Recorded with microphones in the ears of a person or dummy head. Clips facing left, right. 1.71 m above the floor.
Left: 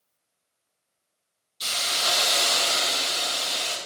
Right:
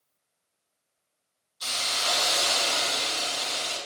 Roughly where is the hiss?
Left.